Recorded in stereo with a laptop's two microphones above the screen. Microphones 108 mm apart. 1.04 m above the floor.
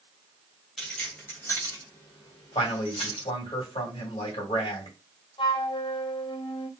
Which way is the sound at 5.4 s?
50° left (ahead or behind).